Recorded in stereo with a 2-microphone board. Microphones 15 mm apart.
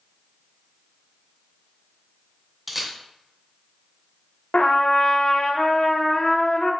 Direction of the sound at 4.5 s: 65° left (ahead or behind).